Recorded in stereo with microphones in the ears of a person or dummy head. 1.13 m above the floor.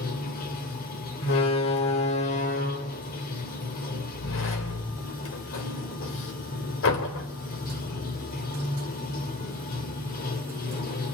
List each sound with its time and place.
0.0 s running water: 45° left (ahead or behind), 2 m
1.2 s a door slam: 70° left (ahead or behind), 3.5 m